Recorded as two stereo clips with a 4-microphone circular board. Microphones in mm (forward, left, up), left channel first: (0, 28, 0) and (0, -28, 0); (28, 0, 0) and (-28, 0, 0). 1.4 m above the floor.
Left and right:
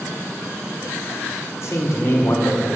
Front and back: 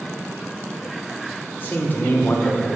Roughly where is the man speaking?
Ahead left.